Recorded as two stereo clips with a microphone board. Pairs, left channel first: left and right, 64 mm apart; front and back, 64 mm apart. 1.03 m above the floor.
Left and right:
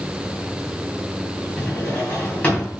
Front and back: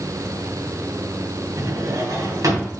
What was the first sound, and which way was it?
A drawer, 155° left.